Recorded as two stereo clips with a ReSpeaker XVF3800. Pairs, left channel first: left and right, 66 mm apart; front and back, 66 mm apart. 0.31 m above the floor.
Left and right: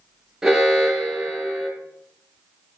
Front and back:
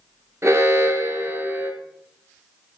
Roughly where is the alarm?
Behind.